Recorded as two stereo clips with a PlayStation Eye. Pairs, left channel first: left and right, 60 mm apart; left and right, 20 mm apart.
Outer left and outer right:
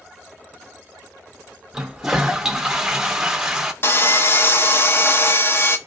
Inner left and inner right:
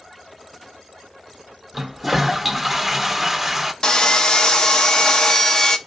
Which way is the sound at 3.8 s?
40° left (ahead or behind).